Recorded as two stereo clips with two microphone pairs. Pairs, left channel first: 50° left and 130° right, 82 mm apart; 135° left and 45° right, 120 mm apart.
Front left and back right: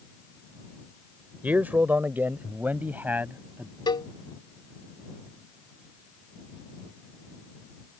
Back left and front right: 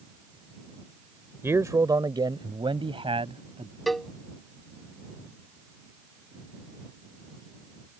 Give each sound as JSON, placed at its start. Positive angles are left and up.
{"t": 1.4, "sound": "a man speaking", "azimuth_deg": -85}
{"t": 3.9, "sound": "a cowbell", "azimuth_deg": 45}